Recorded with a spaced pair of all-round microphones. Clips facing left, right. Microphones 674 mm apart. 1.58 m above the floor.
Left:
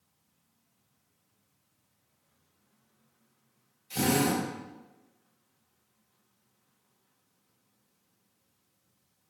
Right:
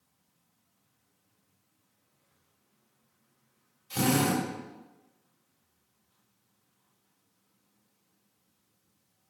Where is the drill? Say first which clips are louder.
Even; 35° right (ahead or behind), 3 m.